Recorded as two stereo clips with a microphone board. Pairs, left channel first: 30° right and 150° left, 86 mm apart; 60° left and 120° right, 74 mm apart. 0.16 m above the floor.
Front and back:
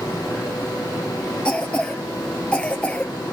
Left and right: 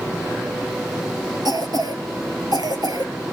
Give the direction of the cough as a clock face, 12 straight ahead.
4 o'clock.